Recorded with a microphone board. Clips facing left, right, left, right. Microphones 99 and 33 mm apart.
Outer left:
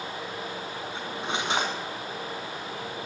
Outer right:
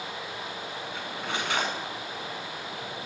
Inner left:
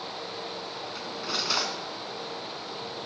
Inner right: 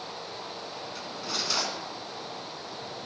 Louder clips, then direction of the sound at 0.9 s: Outer left 2 dB, inner left 2 dB; 20° left (ahead or behind).